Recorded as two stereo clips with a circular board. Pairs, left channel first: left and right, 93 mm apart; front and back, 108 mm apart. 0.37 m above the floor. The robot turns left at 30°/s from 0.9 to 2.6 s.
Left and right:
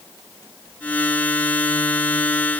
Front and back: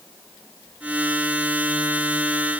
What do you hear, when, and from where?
Only background noise.